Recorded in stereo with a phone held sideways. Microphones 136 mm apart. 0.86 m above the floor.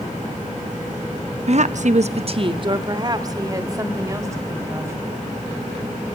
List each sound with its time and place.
1.5 s a woman speaking: 50° right (ahead or behind), 0.8 m; by 5.0 s 20° right (ahead or behind), 4.5 m